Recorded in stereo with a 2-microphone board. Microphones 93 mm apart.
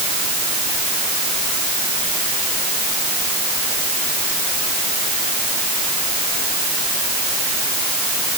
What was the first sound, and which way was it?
Only background noise.